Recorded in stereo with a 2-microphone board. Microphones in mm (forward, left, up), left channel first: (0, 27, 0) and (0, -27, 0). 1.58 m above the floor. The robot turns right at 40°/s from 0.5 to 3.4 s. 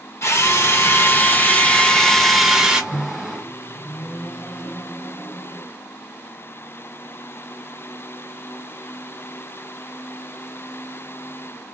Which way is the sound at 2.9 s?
40° left (ahead or behind).